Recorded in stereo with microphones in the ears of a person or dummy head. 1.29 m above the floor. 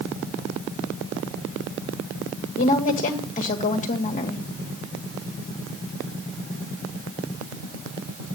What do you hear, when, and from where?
2.6 s a woman speaking: 40° left (ahead or behind), 2.5 m